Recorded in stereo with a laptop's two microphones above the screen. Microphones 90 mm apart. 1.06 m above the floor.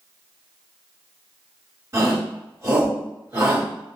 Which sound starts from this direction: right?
A shout, at 1.9 s.